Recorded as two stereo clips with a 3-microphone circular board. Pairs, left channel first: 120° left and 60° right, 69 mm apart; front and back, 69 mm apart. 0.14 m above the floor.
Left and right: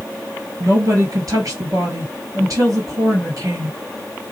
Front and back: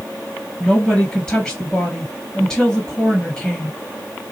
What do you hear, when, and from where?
0.6 s a woman speaking: 75° right, 2.5 m